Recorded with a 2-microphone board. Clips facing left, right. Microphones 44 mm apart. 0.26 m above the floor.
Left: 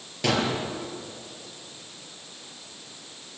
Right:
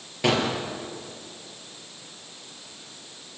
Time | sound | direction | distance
0.2 | a gunshot | 15° right (ahead or behind) | 5.5 m